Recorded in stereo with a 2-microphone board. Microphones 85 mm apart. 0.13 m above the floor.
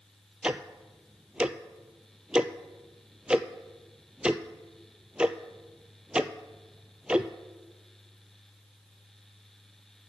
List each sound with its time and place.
0.4 s ticking: 10° right (ahead or behind), 0.5 m